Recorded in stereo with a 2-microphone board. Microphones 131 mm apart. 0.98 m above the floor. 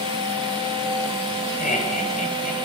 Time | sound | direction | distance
1.6 | laughter | 80° left | 6.5 m